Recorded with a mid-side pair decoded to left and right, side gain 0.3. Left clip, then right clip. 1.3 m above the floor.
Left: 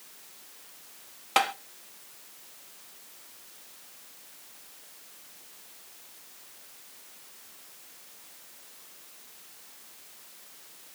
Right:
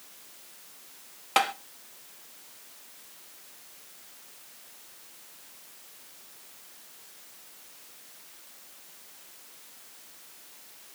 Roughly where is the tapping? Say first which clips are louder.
Even; ahead.